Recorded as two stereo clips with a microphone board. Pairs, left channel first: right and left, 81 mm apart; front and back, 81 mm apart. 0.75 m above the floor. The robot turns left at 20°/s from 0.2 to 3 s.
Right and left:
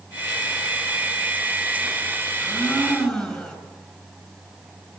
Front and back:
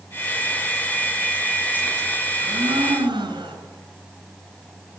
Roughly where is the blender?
Behind.